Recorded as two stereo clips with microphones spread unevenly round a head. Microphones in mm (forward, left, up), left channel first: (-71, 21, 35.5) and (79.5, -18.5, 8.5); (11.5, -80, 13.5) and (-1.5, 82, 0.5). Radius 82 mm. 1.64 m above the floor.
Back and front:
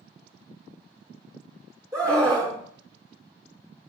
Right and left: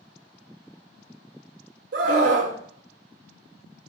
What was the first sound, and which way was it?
A scream, 60° left.